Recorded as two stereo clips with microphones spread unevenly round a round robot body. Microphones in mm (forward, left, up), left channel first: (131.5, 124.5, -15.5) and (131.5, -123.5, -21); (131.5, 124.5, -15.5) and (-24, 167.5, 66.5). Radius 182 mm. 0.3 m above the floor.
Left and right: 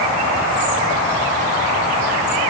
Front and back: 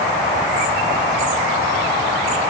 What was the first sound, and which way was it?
Only background noise.